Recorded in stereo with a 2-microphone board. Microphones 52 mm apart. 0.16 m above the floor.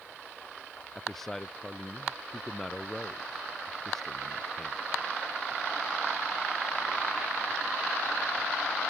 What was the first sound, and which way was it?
A man speaking, 5° left (ahead or behind).